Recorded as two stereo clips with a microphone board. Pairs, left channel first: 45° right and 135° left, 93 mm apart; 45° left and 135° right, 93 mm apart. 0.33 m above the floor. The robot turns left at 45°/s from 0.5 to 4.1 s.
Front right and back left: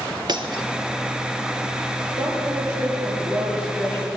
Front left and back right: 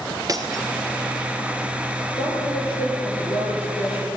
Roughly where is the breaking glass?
Behind.